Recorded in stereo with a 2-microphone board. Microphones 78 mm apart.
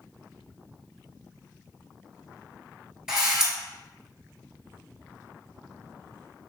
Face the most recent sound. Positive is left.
turn(degrees=-10)  # may be behind; listen again after turning